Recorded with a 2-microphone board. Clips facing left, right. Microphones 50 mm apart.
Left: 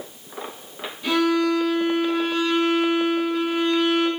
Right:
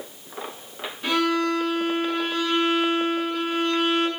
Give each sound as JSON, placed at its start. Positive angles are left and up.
{"t": 1.0, "sound": "a violin", "side_deg": -40, "distance_m": 1.6}